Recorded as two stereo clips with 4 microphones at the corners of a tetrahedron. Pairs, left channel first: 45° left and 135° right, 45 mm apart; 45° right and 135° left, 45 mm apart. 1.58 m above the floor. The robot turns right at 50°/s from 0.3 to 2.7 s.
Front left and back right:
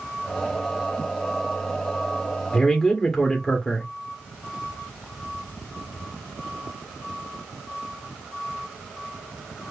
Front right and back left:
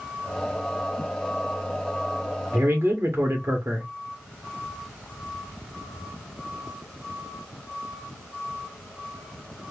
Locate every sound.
2.5 s a man speaking: 120° left, 1.1 m; by 3.9 s 130° left, 1.1 m